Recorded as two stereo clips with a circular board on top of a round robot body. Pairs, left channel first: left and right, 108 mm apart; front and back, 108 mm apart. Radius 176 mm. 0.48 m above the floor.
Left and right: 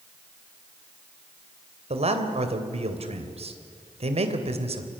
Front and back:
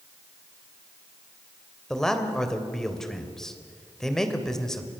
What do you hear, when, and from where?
1.9 s a man speaking: 85° right, 3 m